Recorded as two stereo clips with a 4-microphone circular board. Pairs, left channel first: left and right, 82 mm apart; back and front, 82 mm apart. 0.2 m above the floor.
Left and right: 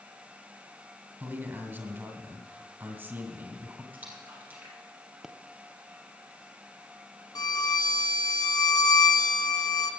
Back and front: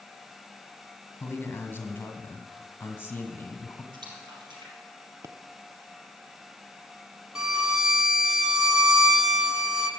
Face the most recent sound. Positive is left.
turn(degrees=80)